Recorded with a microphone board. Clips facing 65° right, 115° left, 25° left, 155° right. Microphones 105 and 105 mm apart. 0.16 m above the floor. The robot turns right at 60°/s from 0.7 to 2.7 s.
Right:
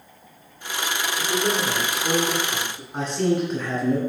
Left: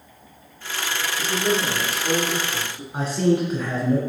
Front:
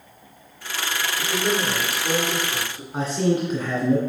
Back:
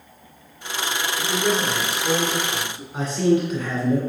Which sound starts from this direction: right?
A man speaking, at 1.2 s.